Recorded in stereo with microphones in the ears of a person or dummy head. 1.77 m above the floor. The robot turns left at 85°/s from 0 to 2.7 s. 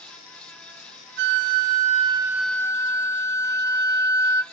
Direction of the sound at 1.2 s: 65° right.